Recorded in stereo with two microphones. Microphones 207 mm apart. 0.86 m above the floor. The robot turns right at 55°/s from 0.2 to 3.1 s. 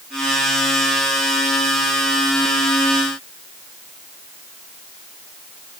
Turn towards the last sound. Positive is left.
No sound to turn to.